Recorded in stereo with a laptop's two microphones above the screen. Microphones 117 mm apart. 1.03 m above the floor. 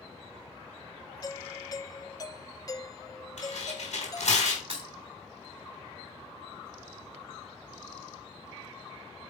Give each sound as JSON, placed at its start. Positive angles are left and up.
{"t": 1.2, "sound": "a doorbell", "side_deg": 30, "distance_m": 0.6}
{"t": 3.4, "sound": "tearing paper", "side_deg": 75, "distance_m": 3.5}
{"t": 4.7, "sound": "breaking glass", "side_deg": -60, "distance_m": 3.0}